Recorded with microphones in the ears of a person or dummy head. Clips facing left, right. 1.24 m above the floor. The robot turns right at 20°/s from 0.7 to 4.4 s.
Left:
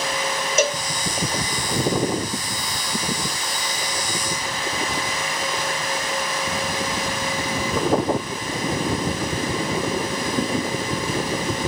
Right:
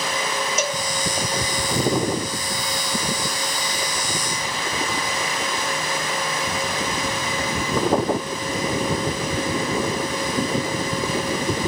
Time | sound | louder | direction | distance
0.6 | a cowbell | left 7 dB | 50° left (ahead or behind) | 0.5 m